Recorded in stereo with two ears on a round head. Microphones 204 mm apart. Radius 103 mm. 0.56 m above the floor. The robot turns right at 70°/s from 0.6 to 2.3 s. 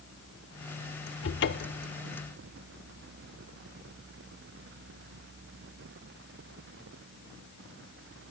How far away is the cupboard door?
About 0.9 m.